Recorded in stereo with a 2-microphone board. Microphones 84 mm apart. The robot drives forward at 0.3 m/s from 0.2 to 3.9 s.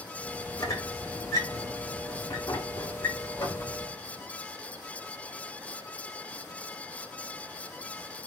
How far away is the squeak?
About 3.5 m.